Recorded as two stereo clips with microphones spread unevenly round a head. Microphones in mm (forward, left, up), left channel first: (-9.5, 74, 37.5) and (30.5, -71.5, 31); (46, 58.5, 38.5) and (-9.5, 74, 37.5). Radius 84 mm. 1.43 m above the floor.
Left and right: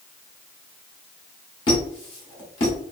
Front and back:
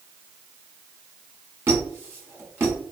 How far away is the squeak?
About 1.0 m.